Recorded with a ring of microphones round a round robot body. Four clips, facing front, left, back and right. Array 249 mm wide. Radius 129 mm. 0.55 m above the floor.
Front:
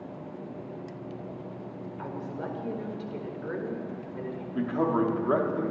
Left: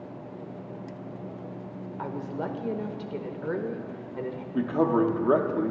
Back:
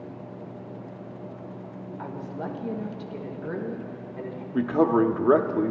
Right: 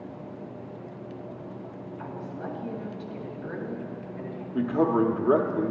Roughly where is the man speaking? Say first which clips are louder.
Even, back 5 dB; behind.